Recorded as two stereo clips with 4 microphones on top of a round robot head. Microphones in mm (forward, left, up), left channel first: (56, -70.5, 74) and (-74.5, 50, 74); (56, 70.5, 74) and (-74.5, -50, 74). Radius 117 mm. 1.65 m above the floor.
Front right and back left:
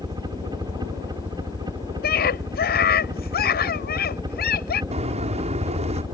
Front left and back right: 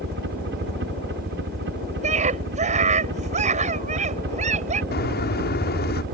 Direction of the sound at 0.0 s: 155° right.